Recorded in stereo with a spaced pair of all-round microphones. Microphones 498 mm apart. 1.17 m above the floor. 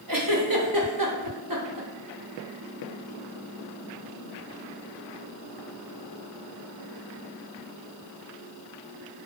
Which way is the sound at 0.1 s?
45° right (ahead or behind).